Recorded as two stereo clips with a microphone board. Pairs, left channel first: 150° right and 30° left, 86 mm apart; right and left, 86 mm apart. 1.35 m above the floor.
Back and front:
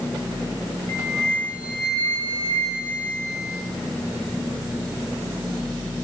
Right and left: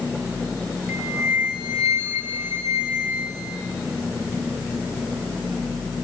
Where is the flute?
160° left, 6 m.